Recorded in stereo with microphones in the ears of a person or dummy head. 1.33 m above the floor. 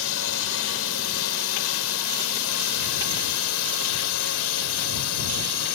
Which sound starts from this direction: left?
A drone, at 0.0 s.